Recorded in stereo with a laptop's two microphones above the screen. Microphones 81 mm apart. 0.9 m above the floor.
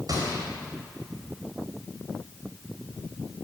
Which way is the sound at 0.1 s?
55° right (ahead or behind).